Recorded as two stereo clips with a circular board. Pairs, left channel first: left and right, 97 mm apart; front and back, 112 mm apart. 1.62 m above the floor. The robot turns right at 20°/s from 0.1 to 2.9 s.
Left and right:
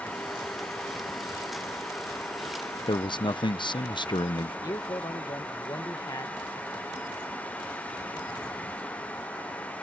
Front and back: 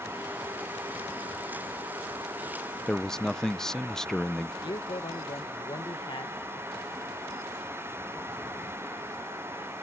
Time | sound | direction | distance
2.9 | a man speaking | 85° left | ?
4.6 | a man speaking | 40° left | ?